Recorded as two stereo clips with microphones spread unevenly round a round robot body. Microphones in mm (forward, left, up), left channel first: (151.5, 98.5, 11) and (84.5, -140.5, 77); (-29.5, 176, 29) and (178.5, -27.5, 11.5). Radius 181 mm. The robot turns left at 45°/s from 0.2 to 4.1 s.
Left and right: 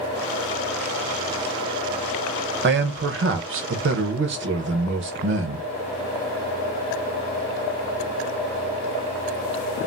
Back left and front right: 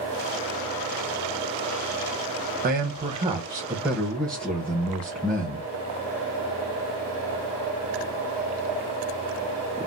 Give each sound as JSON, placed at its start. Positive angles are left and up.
{"t": 2.6, "sound": "a man speaking", "azimuth_deg": -70, "distance_m": 0.8}